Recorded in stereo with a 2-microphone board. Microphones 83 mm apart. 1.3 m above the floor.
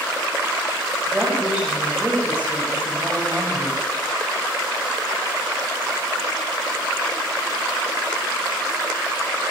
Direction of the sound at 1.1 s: 5° right (ahead or behind).